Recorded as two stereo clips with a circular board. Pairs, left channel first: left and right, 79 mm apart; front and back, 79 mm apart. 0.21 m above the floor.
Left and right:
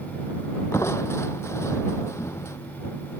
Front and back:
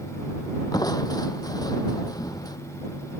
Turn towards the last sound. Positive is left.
turn(degrees=35)